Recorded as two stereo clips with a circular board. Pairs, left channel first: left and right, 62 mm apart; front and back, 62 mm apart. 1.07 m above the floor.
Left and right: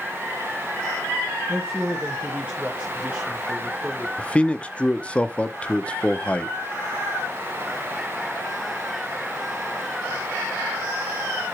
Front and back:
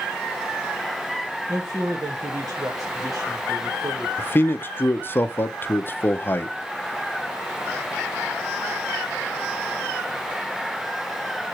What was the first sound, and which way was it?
A woman speaking, 160° right.